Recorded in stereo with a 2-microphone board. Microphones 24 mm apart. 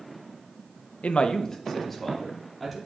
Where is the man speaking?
75° left (ahead or behind), 0.6 m; by 2.8 s 5° left (ahead or behind), 3 m.